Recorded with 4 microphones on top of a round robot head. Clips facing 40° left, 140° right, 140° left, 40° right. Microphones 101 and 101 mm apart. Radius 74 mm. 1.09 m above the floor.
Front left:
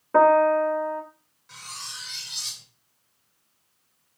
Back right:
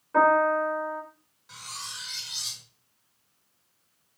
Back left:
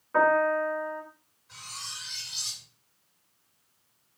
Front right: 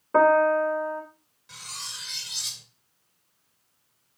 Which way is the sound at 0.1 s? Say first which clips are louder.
Front left 4 dB, front right 4 dB; 5° left.